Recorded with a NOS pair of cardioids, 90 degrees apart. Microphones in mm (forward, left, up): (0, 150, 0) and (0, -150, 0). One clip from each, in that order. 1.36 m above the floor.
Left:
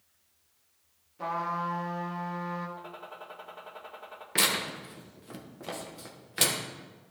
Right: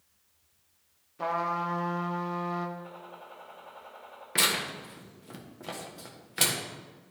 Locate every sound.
1.2 s a trumpet: 25° right, 1.2 m
2.8 s a gunshot: 65° left, 1.9 m
4.3 s tearing paper: 5° left, 1.2 m